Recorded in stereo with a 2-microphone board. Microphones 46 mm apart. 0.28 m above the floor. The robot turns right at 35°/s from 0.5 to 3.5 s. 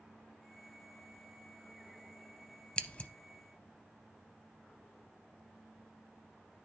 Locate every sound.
2.8 s scissors: 20° left (ahead or behind), 0.5 m; by 3.1 s 30° left (ahead or behind), 0.5 m